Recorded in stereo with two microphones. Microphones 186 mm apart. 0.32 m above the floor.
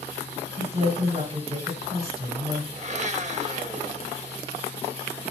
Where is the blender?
40° right (ahead or behind), 0.7 m.